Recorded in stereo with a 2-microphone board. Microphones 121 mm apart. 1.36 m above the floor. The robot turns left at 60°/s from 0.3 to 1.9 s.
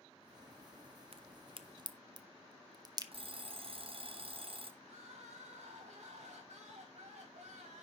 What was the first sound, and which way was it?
A crack, 55° right (ahead or behind).